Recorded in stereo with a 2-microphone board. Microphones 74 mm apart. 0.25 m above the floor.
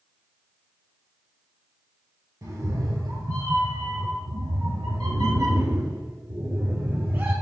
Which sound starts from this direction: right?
A cat meowing, at 2.4 s.